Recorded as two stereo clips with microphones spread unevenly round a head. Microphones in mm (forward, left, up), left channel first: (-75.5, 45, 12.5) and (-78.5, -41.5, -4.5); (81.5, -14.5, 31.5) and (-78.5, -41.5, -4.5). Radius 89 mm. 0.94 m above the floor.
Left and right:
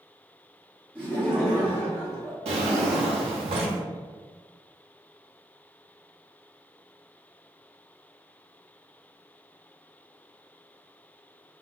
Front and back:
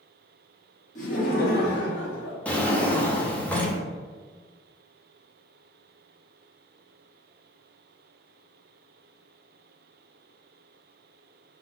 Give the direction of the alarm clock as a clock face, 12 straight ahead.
No alarm clock in this recording.